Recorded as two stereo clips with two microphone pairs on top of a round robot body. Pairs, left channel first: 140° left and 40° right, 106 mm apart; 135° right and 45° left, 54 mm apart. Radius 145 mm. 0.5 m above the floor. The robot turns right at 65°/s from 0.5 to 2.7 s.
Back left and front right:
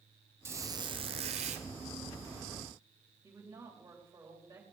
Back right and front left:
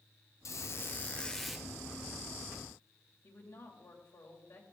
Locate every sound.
0.5 s a squeak: 105° right, 1.2 m; by 1.7 s 30° right, 1.2 m
3.2 s a woman speaking: 105° right, 3.5 m